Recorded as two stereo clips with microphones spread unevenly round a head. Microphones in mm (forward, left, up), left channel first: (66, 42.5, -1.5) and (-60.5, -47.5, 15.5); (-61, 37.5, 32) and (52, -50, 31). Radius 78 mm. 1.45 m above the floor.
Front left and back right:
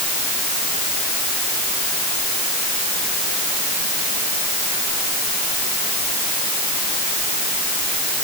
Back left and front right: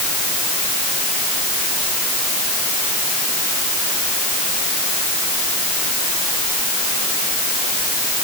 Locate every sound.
Only background noise.